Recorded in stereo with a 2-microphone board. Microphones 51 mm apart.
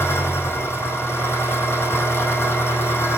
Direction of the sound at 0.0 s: 55° left (ahead or behind).